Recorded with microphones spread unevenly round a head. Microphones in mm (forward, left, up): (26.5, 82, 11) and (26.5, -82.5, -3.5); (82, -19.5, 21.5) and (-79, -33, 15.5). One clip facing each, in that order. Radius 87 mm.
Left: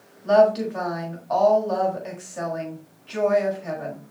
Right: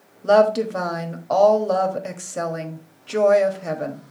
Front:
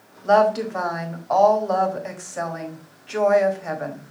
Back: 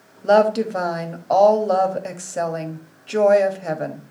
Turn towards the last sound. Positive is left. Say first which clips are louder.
# right 1 dB, back 2 dB
turn(degrees=-125)